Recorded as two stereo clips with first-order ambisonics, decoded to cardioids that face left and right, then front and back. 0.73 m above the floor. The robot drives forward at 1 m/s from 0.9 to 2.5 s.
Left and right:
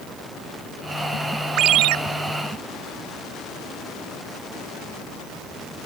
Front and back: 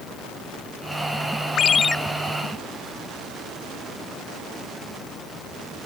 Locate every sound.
1.6 s a ringtone: 50° right; by 2.0 s 85° right